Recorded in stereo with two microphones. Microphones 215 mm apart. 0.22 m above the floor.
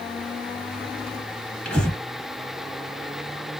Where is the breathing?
5° left (ahead or behind), 1.5 m.